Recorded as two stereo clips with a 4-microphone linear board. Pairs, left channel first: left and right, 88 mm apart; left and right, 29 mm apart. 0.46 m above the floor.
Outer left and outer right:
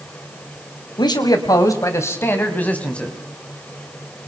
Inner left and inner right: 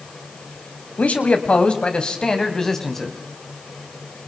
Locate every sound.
1.0 s a man speaking: 55° left (ahead or behind), 3 m; by 3.1 s 10° left (ahead or behind), 3.5 m